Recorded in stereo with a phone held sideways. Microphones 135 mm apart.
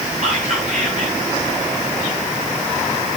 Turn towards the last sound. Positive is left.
turn(degrees=-60)  # may be behind; listen again after turning